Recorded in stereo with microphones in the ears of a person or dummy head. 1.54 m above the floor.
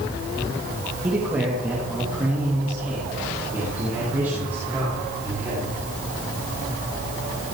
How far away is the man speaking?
About 2.5 m.